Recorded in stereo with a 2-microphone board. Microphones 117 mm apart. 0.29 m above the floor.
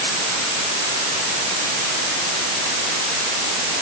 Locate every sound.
Only background noise.